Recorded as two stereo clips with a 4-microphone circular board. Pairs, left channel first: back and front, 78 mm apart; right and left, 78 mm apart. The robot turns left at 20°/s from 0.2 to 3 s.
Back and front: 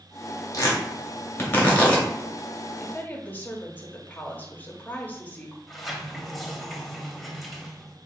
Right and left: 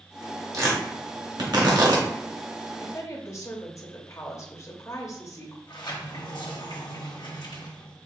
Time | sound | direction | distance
0.5 | tearing paper | 135° left | 1.5 m
2.8 | a woman speaking | 120° right | 0.9 m
5.7 | a sliding door | 90° right | 0.9 m